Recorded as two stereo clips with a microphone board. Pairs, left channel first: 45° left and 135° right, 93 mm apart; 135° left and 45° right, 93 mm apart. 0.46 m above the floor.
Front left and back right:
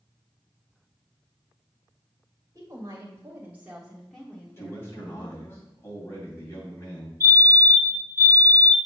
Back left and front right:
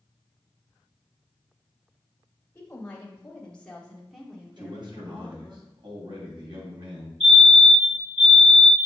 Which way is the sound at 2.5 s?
165° right.